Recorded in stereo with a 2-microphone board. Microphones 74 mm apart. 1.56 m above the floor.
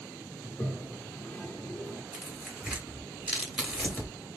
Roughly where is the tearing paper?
Centre.